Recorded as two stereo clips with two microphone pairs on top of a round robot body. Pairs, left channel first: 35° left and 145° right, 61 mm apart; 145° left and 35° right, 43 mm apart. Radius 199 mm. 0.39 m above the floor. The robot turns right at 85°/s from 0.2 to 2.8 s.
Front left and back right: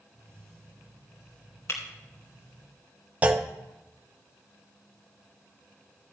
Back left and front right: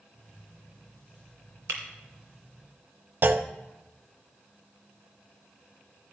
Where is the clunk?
80° right, 0.6 m.